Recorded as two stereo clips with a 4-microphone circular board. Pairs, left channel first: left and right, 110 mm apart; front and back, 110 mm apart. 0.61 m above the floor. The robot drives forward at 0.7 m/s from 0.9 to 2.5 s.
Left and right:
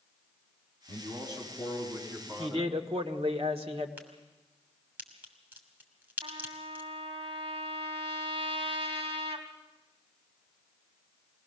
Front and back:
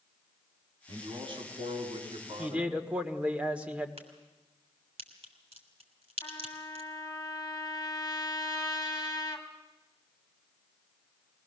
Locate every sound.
0.9 s a man speaking: 140° right, 4.5 m; by 2.8 s 150° right, 5 m
2.4 s a man speaking: 100° right, 1.7 m
4.0 s a crack: 165° right, 3 m
6.2 s a trumpet: 60° right, 2.5 m